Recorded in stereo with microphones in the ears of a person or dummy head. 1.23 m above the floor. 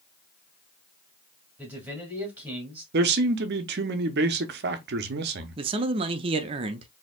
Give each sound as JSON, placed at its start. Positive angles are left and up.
{"t": 1.6, "sound": "a man speaking", "side_deg": -15, "distance_m": 2.0}
{"t": 2.9, "sound": "a man speaking", "side_deg": -55, "distance_m": 0.7}
{"t": 5.6, "sound": "a man speaking", "side_deg": -30, "distance_m": 0.5}